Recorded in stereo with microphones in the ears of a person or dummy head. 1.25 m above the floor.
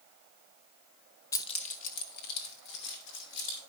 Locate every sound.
1.3 s keys jangling: 15° left (ahead or behind), 0.7 m; by 3.6 s 70° left (ahead or behind), 3.5 m